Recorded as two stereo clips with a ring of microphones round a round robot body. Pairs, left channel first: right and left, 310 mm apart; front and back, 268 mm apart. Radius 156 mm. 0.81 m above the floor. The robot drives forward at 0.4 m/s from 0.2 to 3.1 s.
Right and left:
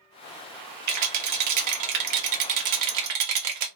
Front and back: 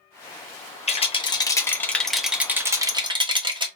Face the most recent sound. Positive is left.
turn(degrees=110)